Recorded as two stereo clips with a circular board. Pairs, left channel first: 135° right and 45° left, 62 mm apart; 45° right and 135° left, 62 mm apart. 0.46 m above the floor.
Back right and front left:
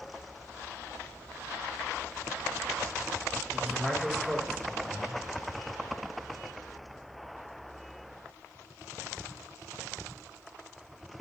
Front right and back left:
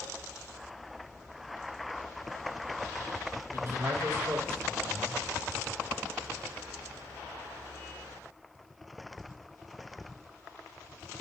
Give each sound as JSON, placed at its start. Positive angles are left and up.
{"t": 3.5, "sound": "a man speaking", "azimuth_deg": 120, "distance_m": 1.5}